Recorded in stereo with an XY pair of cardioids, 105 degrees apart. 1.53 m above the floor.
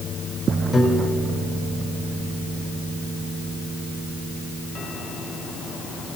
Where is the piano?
20° left, 4 m.